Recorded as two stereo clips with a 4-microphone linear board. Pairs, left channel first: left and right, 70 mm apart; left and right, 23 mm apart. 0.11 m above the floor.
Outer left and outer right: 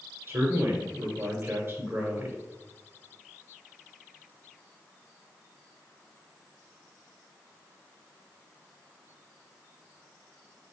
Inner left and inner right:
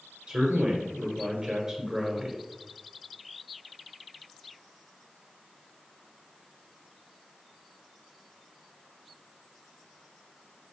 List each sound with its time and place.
0.3 s a man speaking: 35° right (ahead or behind), 1.4 m